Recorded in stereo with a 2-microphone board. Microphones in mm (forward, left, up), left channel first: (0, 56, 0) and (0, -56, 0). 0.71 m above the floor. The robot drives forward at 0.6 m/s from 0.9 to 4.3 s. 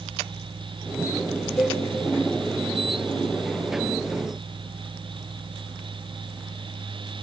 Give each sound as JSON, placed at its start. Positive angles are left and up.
{"t": 1.6, "sound": "a cowbell", "side_deg": 25, "distance_m": 1.0}